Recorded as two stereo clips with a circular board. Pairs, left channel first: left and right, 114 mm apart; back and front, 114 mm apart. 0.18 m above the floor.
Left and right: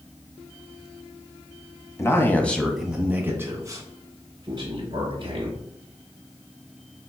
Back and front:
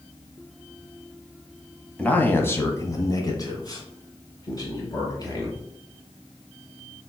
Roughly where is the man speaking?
Behind left.